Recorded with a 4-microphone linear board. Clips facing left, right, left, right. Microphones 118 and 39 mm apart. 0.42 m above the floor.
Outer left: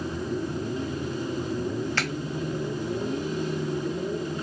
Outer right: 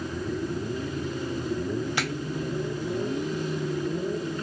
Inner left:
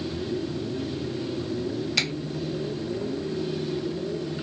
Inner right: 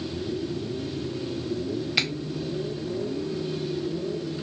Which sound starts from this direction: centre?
A finger snap, at 2.0 s.